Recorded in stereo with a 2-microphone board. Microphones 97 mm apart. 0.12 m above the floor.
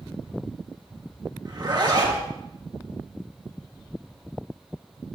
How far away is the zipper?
About 2.5 m.